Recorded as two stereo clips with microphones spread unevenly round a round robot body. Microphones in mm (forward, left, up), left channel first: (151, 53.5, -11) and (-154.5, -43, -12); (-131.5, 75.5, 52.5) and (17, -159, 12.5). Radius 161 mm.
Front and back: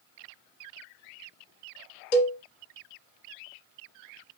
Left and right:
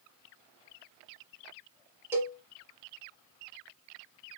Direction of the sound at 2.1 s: 20° left.